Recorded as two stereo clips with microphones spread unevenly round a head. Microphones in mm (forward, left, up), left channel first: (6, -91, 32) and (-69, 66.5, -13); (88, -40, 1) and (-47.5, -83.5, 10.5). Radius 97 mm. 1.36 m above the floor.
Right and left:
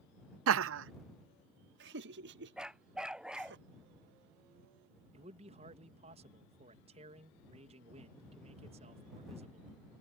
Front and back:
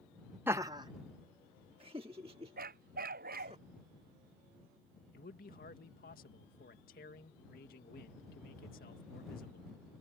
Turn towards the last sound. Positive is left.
turn(degrees=60)